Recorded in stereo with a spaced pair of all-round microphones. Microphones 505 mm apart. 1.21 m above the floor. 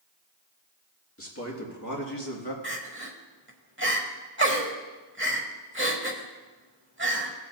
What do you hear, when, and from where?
1.2 s a man speaking: 25° left (ahead or behind), 2 m; by 2.5 s 50° left (ahead or behind), 1.8 m
2.6 s crying: 25° right (ahead or behind), 1.0 m